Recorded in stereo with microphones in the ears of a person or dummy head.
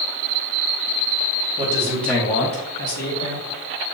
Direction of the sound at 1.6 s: 30° right (ahead or behind).